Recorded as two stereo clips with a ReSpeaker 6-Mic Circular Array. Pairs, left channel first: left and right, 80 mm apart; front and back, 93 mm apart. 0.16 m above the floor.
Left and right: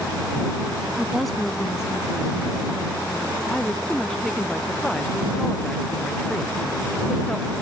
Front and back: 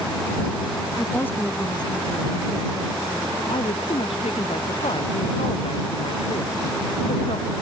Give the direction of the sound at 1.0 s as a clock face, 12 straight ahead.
1 o'clock.